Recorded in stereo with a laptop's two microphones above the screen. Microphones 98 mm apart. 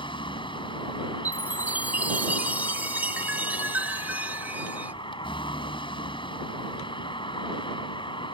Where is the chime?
15° right (ahead or behind).